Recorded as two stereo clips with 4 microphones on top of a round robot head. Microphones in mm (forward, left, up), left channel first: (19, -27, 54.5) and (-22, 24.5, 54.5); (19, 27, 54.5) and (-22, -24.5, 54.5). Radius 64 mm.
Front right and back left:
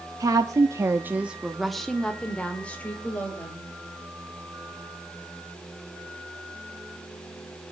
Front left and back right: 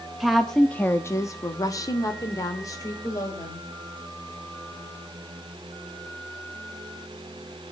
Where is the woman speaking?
145° left, 1.3 m; by 3.7 s 15° left, 3.5 m.